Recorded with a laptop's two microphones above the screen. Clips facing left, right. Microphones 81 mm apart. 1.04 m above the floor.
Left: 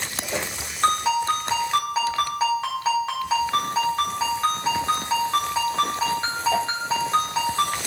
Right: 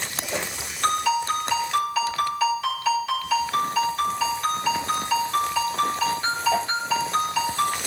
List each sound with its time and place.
0.8 s a ringtone: 35° left (ahead or behind), 1.7 m